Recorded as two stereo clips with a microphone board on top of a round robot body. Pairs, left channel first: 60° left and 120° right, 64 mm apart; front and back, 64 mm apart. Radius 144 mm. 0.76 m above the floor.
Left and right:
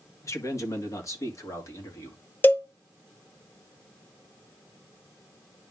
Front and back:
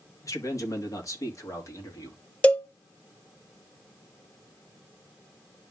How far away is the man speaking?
About 1.9 m.